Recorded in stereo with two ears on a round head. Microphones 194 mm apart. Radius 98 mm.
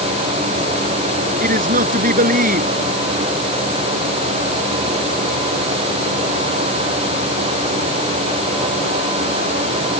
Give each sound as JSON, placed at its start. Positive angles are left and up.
{"t": 1.4, "sound": "a man speaking", "side_deg": -40}